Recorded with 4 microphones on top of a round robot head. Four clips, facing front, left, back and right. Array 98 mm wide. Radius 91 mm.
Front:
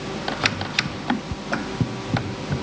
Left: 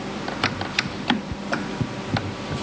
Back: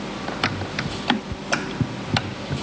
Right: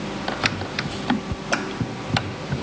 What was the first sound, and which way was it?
Only background noise.